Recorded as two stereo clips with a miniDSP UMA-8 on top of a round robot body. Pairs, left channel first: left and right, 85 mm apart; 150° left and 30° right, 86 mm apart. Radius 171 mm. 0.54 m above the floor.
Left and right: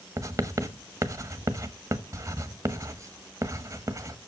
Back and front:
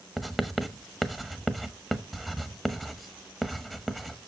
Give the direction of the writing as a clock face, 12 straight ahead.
4 o'clock.